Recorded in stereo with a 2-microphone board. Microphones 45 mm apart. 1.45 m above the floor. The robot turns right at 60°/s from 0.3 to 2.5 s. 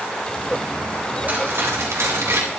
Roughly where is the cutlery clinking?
Behind right.